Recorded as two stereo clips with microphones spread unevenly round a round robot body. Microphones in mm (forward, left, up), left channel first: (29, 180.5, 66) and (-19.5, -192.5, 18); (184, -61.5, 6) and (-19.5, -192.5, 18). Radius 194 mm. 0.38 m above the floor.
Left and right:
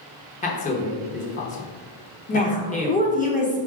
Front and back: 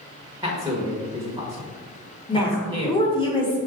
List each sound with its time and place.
0.4 s a man speaking: 150° left, 0.9 m
2.3 s a woman speaking: 25° left, 0.8 m